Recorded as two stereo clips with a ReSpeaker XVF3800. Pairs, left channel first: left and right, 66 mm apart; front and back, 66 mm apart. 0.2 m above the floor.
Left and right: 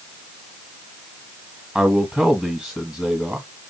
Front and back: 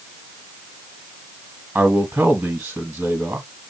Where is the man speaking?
145° right, 1.7 m.